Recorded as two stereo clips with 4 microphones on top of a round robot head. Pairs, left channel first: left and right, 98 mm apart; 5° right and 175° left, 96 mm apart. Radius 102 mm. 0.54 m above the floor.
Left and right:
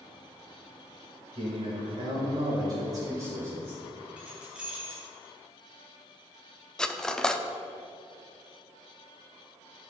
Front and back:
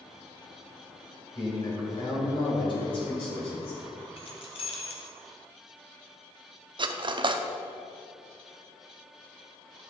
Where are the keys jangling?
10° right, 1.6 m.